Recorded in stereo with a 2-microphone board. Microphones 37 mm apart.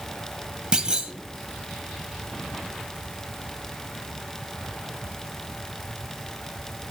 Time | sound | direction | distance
0.7 | a clunk | 20° right (ahead or behind) | 1.8 m